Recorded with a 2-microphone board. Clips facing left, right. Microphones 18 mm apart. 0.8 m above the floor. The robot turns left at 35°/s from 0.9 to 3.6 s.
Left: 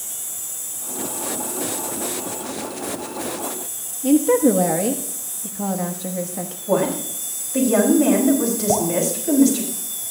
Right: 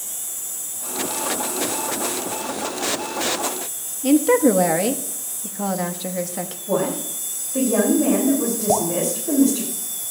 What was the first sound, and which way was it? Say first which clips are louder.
A woman speaking: even; 30° right (ahead or behind).